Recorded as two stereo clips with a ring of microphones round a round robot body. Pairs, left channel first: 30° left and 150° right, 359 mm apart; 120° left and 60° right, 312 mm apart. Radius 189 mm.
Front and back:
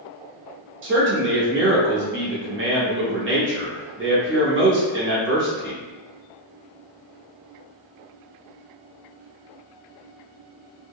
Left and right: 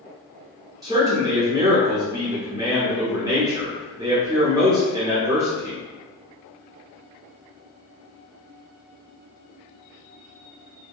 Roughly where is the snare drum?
No snare drum in this recording.